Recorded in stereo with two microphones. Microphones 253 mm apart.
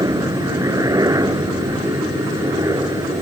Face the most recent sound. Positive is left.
turn(degrees=-15)  # may be behind; listen again after turning